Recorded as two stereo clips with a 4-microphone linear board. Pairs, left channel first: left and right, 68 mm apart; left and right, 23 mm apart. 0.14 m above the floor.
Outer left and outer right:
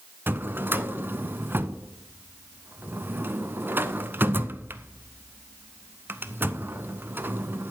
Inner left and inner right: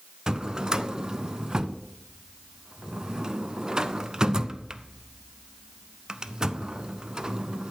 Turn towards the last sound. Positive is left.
turn(degrees=-30)  # may be behind; listen again after turning